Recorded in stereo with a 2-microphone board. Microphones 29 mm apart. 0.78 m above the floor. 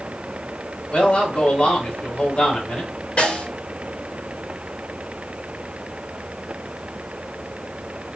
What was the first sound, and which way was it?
A man speaking, 45° left (ahead or behind).